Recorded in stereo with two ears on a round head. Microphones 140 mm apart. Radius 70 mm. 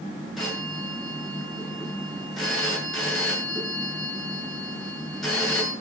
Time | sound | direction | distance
0.4 | a phone ringing | centre (ahead or behind) | 9 m